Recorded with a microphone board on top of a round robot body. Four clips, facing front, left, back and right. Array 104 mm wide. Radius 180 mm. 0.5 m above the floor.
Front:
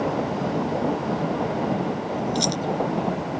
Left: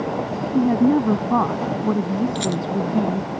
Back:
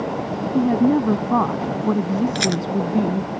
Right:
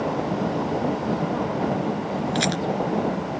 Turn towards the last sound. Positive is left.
turn(degrees=-150)